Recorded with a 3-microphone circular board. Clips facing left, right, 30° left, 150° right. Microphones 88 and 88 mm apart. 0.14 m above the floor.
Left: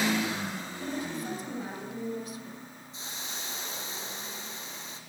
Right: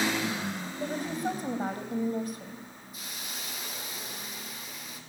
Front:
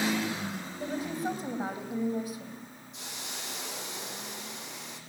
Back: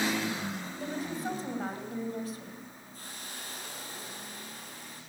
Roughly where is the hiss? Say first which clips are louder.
Left 1 dB, front 3 dB; ahead left.